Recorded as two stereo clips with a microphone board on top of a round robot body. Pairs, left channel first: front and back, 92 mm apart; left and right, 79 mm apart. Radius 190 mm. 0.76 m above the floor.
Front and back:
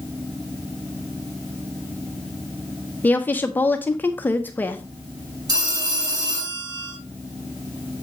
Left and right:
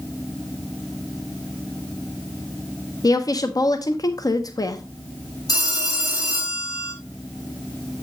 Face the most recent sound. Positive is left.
turn(degrees=130)